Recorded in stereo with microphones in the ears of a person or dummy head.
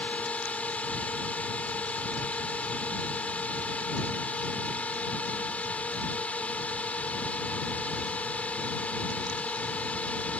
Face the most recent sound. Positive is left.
turn(degrees=5)  # may be behind; listen again after turning